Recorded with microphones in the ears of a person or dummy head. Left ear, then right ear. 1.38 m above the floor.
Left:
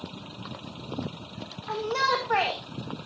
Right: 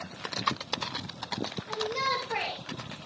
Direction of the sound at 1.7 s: 40° left (ahead or behind).